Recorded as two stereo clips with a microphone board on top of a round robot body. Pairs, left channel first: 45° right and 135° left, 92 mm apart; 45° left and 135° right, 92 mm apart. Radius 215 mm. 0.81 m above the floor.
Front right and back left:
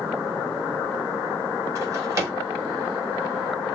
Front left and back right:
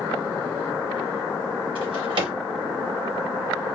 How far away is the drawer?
About 1.0 m.